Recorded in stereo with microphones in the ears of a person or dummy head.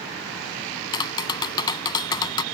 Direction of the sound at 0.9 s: 20° left (ahead or behind).